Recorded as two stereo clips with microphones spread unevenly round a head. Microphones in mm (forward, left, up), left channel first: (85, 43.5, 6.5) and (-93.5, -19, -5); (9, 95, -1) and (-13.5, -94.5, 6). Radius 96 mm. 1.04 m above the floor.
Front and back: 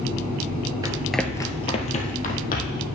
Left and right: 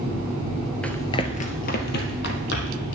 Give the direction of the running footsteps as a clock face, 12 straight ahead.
7 o'clock.